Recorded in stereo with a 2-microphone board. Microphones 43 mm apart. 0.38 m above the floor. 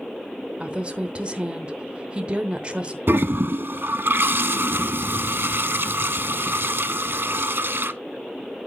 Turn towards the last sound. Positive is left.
turn(degrees=-65)  # may be behind; listen again after turning